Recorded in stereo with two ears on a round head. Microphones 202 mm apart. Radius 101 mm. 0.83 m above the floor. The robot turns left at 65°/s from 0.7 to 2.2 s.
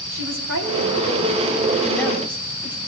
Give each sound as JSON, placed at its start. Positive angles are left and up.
{"t": 0.1, "sound": "a woman speaking", "azimuth_deg": -105, "distance_m": 6.0}